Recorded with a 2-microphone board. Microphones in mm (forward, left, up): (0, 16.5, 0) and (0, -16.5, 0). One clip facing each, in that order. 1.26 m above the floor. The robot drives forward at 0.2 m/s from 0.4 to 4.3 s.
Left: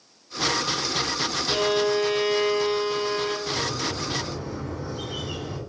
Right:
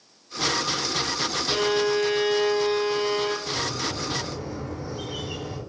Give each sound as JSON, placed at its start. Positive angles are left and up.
{"t": 1.5, "sound": "a violin", "side_deg": 0, "distance_m": 0.8}
{"t": 3.5, "sound": "a bird", "side_deg": 40, "distance_m": 1.6}